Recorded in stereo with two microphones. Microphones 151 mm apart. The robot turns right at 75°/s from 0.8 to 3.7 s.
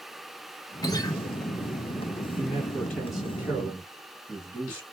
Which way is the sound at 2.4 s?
20° left (ahead or behind).